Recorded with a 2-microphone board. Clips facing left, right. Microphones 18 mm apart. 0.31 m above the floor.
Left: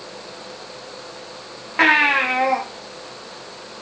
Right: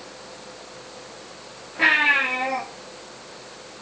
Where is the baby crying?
75° left (ahead or behind), 6.5 m.